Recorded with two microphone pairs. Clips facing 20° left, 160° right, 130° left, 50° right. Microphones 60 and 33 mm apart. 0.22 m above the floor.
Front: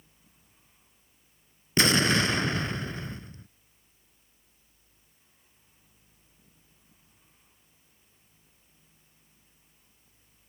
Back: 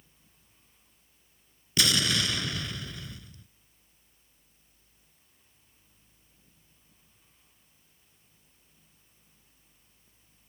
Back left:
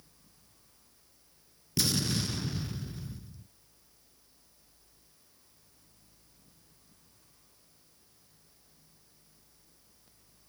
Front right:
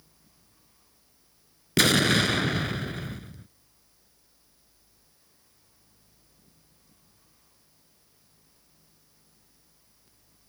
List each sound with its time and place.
1.8 s an explosion: 30° right